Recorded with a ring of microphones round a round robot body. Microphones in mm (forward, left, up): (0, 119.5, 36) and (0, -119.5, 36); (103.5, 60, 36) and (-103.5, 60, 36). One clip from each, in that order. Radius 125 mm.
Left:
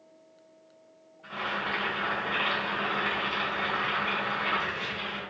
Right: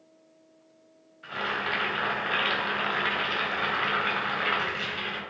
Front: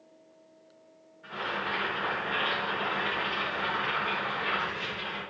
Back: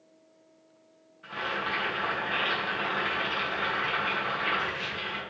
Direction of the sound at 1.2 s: 110° right.